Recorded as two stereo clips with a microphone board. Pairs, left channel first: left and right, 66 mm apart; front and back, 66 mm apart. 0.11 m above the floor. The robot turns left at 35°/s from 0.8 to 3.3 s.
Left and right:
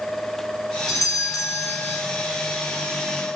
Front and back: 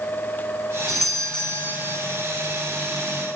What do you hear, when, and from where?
0.9 s a doorbell: 95° left, 2.5 m; by 2.0 s 55° left, 2.5 m